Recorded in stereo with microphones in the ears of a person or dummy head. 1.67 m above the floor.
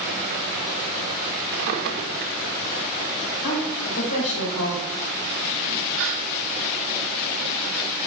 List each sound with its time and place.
1.5 s a drawer: 55° right (ahead or behind), 1.6 m
3.4 s a woman speaking: 70° left (ahead or behind), 4.5 m
6.0 s a gasp: 70° right (ahead or behind), 1.5 m